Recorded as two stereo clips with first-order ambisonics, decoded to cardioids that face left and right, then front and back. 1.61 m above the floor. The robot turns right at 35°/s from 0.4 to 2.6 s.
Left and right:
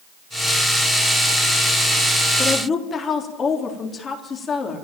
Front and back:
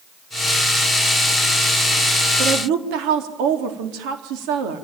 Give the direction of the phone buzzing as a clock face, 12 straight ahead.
No phone buzzing in this recording.